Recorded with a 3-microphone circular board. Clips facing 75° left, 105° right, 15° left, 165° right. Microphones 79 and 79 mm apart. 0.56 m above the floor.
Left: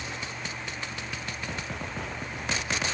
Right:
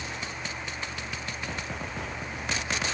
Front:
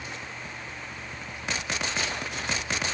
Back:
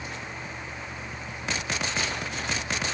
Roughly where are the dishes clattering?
I don't hear dishes clattering.